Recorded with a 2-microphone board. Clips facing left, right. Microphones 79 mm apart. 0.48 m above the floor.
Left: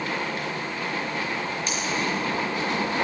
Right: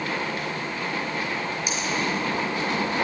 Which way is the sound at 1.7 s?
10° right (ahead or behind).